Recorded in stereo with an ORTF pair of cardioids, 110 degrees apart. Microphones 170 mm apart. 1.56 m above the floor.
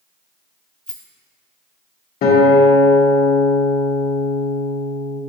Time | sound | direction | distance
0.9 | a rattle | 5° left | 0.7 m
2.2 | a guitar | 60° left | 1.5 m